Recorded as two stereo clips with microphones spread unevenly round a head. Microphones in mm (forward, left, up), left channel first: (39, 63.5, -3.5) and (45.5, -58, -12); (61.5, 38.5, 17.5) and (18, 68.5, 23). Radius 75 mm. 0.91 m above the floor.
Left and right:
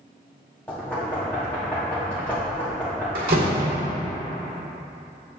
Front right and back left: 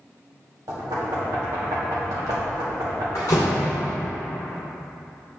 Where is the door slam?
85° right, 1.7 m.